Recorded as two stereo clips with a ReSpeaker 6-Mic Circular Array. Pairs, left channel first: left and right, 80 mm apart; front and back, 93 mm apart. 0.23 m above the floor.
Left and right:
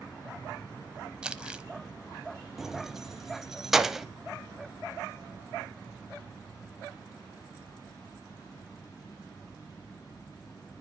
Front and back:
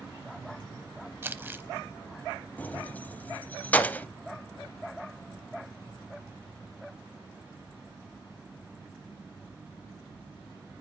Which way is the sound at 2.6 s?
15° right.